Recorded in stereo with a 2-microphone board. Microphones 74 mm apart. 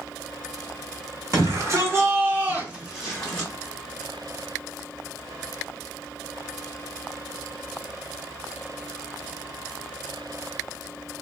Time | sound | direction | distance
1.3 | a shout | 45° right (ahead or behind) | 1.4 m